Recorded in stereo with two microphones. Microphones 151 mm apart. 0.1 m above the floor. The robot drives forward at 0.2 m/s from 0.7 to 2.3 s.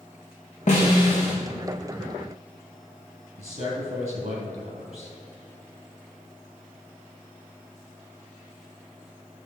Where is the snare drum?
50° left (ahead or behind), 2.5 m.